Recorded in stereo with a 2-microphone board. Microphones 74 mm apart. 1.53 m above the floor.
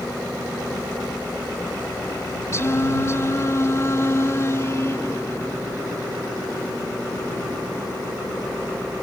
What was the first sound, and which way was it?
Singing, 40° left (ahead or behind).